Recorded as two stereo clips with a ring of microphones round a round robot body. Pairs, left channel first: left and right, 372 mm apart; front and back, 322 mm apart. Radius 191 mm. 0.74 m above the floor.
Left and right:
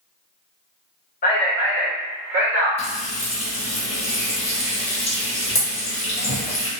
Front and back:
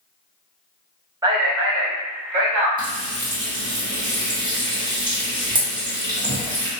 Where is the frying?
130° left, 1.1 m.